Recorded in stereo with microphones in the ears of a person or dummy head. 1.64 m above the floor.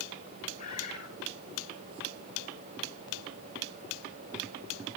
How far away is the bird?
About 5.5 m.